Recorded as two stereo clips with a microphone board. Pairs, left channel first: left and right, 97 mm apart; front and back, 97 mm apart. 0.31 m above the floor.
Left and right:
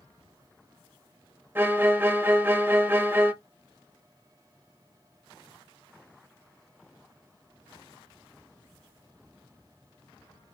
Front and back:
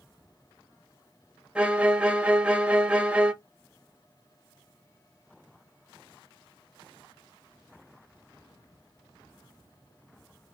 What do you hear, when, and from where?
1.6 s a violin: 120° right, 0.5 m